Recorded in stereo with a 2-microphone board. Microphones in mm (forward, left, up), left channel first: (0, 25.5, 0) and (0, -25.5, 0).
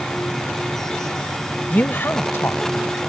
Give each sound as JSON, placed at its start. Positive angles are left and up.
{"t": 1.7, "sound": "a woman speaking", "side_deg": 35}